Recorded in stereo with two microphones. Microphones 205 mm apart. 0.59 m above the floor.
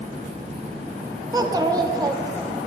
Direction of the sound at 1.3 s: 20° right (ahead or behind).